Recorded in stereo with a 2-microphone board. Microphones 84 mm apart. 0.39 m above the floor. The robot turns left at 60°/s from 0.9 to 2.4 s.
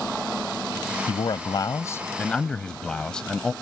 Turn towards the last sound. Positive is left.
turn(degrees=10)